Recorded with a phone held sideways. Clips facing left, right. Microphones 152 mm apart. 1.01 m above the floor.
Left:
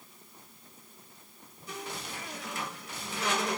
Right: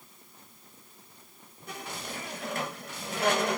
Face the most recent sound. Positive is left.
turn(degrees=-60)  # may be behind; listen again after turning